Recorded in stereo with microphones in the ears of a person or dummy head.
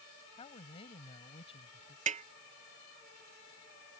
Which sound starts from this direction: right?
A snare drum, at 2.1 s.